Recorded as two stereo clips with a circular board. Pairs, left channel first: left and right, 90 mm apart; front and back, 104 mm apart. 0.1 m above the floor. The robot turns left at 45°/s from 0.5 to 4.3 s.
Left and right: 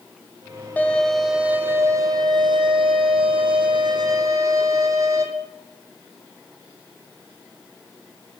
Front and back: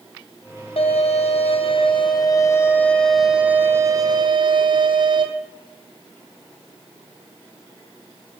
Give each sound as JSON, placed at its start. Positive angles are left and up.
{"t": 0.8, "sound": "a violin", "azimuth_deg": 20, "distance_m": 0.7}